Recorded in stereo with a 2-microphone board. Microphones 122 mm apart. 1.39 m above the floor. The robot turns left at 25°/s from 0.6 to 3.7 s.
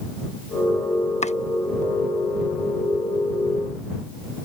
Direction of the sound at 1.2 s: 70° left (ahead or behind).